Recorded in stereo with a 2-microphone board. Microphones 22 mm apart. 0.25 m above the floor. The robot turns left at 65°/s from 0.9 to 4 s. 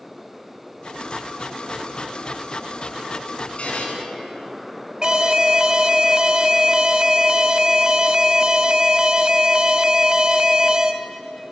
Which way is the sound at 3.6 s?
55° left (ahead or behind).